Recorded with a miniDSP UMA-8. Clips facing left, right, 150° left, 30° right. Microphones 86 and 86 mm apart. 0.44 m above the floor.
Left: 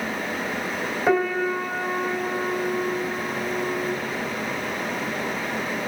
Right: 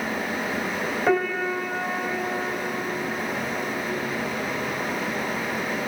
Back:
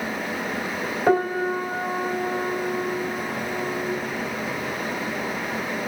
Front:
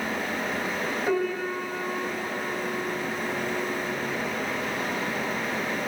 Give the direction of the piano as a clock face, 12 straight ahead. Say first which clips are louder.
Left 2 dB, back 8 dB; 6 o'clock.